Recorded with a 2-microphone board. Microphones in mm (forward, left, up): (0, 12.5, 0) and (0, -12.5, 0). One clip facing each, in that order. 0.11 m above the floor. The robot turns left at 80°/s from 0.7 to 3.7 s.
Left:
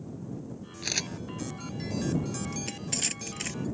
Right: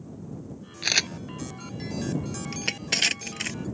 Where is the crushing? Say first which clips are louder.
Right 7 dB; 50° right (ahead or behind); by 3.6 s 15° right (ahead or behind).